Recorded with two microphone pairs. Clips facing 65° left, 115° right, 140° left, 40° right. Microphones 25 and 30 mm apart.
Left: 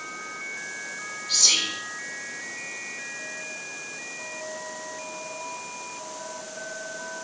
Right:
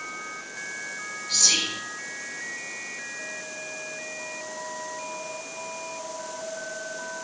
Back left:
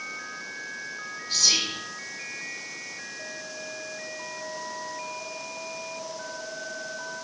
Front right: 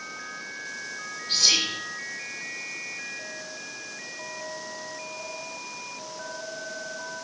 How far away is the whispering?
About 2.5 m.